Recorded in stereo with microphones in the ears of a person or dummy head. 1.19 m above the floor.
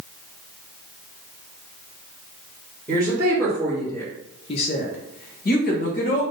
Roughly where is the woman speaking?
Centre.